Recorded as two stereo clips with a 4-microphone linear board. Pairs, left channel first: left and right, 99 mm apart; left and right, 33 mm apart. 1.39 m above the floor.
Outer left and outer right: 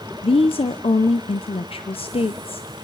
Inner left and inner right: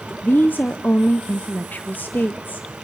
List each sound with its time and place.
0.2 s a woman speaking: 70° left (ahead or behind), 0.7 m